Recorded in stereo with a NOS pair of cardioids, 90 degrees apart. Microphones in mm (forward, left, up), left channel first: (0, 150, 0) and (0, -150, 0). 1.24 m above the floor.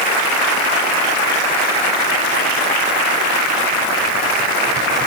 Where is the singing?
No singing in this recording.